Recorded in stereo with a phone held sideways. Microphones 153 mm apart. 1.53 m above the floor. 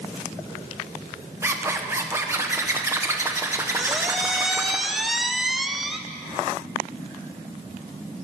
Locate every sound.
1.4 s a zipper: 15° right (ahead or behind), 1.1 m
3.8 s a squeak: centre (ahead or behind), 0.7 m